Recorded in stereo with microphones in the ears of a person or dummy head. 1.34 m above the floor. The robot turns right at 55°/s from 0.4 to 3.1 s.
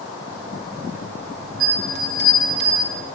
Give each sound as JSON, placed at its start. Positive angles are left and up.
{"t": 1.6, "sound": "a bell", "azimuth_deg": -95, "distance_m": 3.5}